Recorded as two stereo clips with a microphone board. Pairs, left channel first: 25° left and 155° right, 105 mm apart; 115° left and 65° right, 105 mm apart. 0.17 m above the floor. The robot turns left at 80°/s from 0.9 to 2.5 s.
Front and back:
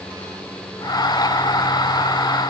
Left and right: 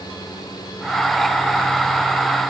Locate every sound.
Only background noise.